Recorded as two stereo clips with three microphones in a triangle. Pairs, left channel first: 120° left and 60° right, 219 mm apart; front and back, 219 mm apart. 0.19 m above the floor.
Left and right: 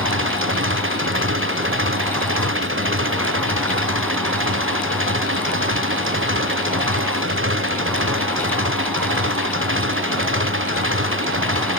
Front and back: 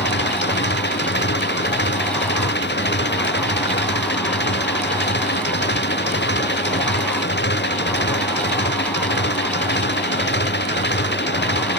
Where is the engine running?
40° right.